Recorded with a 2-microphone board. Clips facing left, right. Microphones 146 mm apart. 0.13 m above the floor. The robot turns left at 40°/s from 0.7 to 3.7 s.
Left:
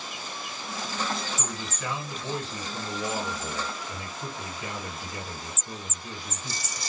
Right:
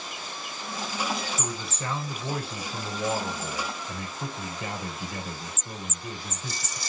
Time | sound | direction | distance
1.4 | a man speaking | 20° right | 9.5 m